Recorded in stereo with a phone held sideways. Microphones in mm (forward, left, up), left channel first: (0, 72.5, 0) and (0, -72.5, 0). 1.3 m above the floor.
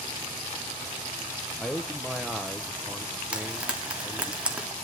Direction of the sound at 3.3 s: 10° right (ahead or behind).